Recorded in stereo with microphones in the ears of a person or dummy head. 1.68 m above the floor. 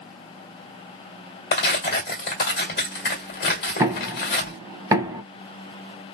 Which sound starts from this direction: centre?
Knocking, at 3.8 s.